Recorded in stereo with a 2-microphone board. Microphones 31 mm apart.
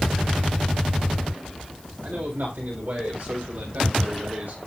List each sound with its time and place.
2.0 s a man speaking: 70° right (ahead or behind), 9 m